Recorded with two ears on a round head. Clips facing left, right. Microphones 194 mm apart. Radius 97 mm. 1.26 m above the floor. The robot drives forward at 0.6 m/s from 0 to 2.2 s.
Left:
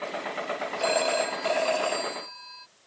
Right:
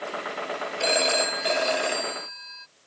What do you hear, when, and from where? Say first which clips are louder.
0.8 s a phone ringing: even; 30° right (ahead or behind); by 2.7 s 25° right (ahead or behind)